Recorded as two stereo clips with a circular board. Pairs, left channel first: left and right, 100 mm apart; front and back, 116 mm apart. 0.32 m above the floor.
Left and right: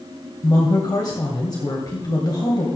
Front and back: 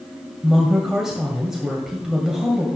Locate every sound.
0.4 s a woman speaking: 95° left, 1.9 m